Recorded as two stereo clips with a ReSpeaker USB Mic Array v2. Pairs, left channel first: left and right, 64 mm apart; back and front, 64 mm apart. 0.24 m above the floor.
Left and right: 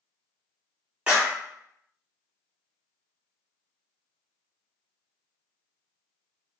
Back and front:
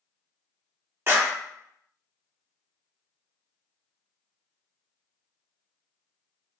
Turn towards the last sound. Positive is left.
turn(degrees=-25)